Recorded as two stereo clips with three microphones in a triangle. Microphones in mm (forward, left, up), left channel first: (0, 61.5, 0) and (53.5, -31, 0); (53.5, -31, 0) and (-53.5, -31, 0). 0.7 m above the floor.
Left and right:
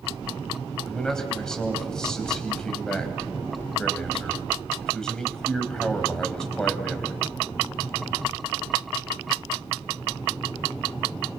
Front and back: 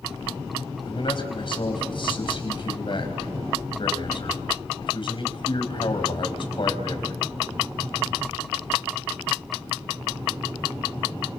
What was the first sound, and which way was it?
A man speaking, 35° left.